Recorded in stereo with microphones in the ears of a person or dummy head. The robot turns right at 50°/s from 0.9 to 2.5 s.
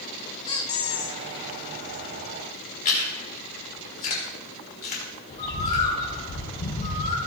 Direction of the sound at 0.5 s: 20° left (ahead or behind).